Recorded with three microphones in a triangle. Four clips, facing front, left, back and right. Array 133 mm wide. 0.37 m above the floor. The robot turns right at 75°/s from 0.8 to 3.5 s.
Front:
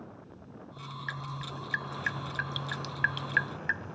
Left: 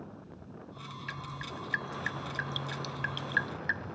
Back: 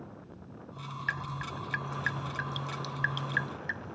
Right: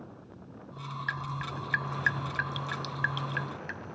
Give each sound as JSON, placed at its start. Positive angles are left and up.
{"t": 1.1, "sound": "dripping", "azimuth_deg": -160}